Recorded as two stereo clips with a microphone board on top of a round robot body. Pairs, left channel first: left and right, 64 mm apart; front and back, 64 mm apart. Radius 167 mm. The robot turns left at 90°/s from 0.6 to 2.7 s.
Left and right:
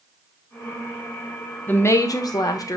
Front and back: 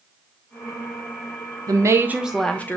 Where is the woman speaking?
155° left, 1.3 m; by 2.8 s 60° left, 1.3 m.